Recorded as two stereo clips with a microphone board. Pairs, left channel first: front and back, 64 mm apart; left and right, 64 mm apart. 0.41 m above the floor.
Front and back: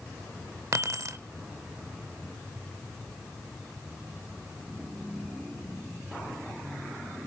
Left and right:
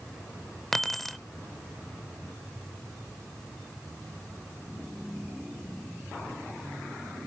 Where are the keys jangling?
Straight behind, 0.7 m.